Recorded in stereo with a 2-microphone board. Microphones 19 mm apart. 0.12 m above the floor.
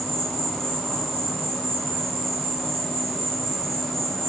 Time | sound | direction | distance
0.0 | an insect | 40° left (ahead or behind) | 5 m